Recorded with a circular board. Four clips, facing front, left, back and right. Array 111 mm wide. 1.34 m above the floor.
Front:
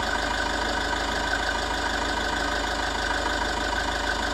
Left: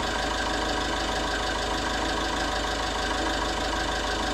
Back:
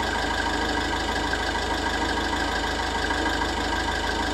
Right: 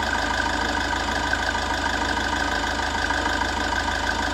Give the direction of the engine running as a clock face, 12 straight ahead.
3 o'clock.